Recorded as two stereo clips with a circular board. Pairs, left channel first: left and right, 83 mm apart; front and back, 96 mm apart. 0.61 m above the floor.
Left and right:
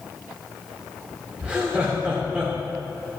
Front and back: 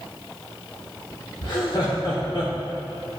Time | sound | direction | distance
1.4 | laughter | 15° right | 1.3 m